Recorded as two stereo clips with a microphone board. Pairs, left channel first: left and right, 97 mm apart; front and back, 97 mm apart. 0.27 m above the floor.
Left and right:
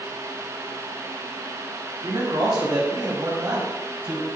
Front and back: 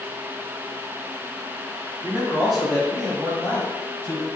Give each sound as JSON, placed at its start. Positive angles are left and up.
{"t": 2.0, "sound": "a man speaking", "azimuth_deg": -105, "distance_m": 1.8}